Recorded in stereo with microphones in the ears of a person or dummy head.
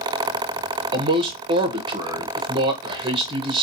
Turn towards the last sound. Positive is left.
turn(degrees=-25)  # may be behind; listen again after turning